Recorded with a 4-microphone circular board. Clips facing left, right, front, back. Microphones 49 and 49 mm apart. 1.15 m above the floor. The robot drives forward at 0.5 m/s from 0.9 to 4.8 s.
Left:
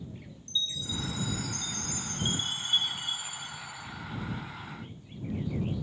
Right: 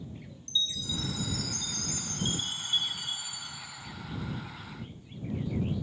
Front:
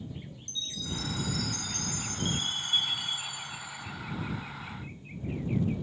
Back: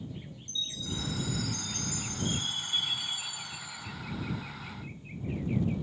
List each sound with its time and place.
0.5 s a chime: 25° left, 3 m; by 3.9 s 45° left, 1.6 m